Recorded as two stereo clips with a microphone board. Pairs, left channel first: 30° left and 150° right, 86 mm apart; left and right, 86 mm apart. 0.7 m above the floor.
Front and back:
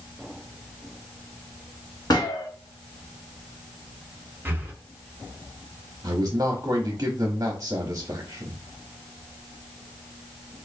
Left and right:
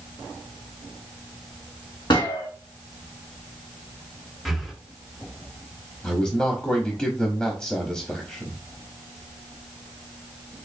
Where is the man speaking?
165° left, 0.9 m.